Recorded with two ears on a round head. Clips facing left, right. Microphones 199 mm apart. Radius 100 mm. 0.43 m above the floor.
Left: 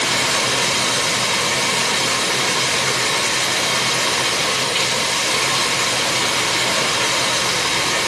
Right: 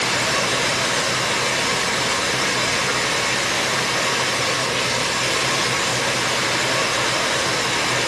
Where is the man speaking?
I don't hear a man speaking.